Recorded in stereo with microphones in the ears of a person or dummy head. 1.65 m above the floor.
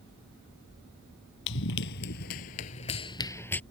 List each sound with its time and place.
1.5 s running footsteps: 60° left (ahead or behind); by 3.6 s 10° left (ahead or behind)